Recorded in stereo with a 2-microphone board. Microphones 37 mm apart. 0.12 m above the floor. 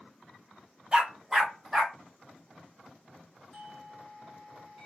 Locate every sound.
0.9 s a dog barking: 20° right (ahead or behind), 1.0 m; by 2.0 s 5° right (ahead or behind), 1.7 m
3.5 s a doorbell: centre (ahead or behind), 2.5 m